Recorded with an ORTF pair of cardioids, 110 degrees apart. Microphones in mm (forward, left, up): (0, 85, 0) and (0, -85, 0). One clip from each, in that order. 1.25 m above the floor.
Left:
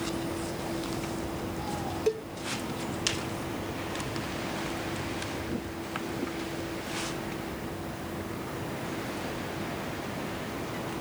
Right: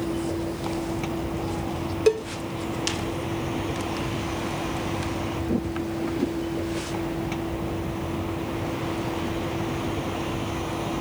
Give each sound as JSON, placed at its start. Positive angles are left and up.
{"t": 0.0, "sound": "a vehicle", "azimuth_deg": -45}
{"t": 2.1, "sound": "a cowbell", "azimuth_deg": -55}